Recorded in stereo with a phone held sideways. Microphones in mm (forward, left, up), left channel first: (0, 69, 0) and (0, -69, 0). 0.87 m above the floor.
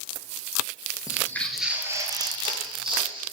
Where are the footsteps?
25° left (ahead or behind), 0.9 m; by 3.2 s 40° right (ahead or behind), 2 m.